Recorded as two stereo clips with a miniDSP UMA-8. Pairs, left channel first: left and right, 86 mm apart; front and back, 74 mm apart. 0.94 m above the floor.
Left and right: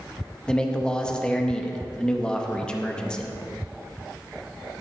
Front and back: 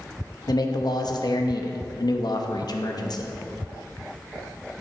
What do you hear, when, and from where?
0.5 s a man speaking: 10° left, 0.8 m